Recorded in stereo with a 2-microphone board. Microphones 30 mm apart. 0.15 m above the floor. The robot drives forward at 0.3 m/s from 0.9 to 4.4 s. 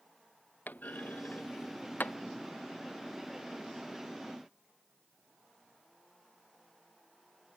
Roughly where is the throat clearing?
I don't hear throat clearing.